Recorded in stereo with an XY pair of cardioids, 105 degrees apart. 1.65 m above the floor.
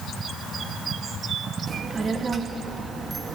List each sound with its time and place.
1.7 s a child speaking: 35° right, 2.5 m